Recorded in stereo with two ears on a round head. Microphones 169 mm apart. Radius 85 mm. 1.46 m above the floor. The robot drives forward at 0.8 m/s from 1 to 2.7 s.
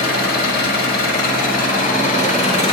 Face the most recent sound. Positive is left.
turn(degrees=30)  # may be behind; listen again after turning